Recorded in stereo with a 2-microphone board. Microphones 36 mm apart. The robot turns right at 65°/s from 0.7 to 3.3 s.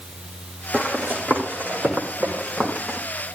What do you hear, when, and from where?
0.7 s running footsteps: 50° right (ahead or behind), 4.5 m; by 3.0 s 5° left (ahead or behind), 6 m